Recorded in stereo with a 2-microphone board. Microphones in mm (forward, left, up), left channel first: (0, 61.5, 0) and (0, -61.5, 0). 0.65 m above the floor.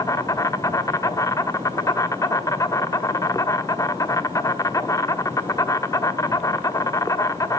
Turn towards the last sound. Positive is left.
turn(degrees=30)  # may be behind; listen again after turning